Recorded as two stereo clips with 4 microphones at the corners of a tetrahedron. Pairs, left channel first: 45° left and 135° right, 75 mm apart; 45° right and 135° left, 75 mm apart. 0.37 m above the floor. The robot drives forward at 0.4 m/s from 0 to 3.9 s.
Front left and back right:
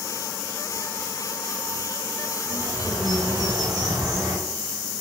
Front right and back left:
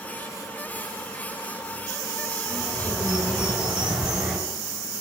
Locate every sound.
2.4 s a bird: 150° right, 5.5 m; by 4.4 s 155° right, 6 m